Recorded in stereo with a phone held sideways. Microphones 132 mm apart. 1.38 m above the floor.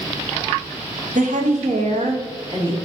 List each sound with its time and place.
1.1 s a woman speaking: 75° right (ahead or behind), 0.6 m; by 2.8 s 40° right (ahead or behind), 1.2 m